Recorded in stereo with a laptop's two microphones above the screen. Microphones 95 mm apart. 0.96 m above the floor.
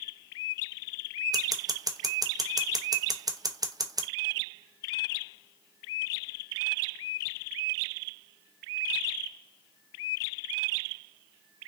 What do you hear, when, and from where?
1.3 s scissors: 40° right (ahead or behind), 0.6 m